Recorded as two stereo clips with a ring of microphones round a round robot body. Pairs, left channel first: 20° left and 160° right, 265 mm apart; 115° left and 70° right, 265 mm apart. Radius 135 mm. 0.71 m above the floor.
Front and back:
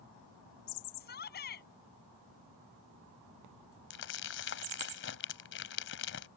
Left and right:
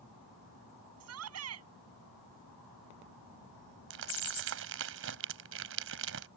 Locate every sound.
1.0 s a shout: 35° right
3.9 s crumpling: 25° right